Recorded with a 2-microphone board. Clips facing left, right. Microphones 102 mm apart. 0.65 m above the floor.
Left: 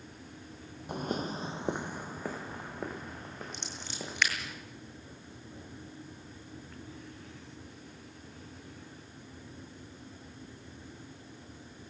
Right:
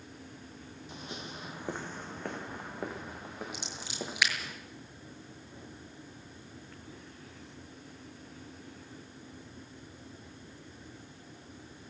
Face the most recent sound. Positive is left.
turn(degrees=-10)  # may be behind; listen again after turning